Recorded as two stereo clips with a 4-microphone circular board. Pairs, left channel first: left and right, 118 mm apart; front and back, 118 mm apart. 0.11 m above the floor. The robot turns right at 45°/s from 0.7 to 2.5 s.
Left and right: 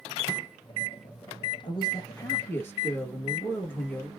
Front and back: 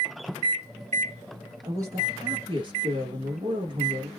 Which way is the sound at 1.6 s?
115° left.